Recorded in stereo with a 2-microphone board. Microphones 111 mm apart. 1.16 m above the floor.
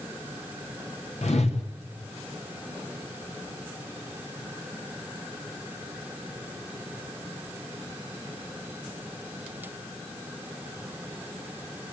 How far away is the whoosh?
About 2.5 m.